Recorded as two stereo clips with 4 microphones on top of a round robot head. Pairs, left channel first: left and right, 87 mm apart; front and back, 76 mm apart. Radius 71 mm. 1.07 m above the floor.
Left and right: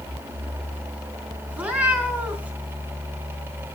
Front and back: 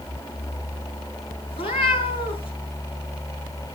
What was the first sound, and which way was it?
A cat meowing, 15° right.